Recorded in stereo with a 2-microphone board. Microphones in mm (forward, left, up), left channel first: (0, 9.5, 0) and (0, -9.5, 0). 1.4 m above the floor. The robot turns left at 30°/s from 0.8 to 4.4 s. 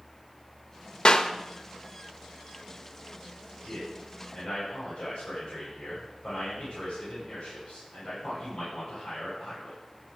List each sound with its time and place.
1.1 s a clap: 50° left (ahead or behind), 1.0 m; by 1.3 s 40° left (ahead or behind), 1.0 m
3.6 s a man speaking: 30° left (ahead or behind), 9 m; by 9.8 s 55° left (ahead or behind), 9 m